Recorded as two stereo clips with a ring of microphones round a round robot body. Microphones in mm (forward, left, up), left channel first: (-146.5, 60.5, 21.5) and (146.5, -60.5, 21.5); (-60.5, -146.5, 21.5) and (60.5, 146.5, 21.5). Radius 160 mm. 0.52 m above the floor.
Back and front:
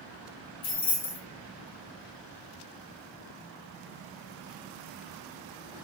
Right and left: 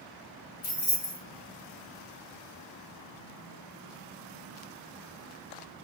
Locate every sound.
0.6 s keys jangling: 150° right, 1.8 m